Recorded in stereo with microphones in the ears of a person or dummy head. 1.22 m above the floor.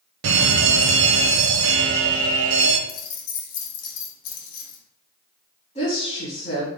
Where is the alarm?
60° right (ahead or behind), 0.6 m.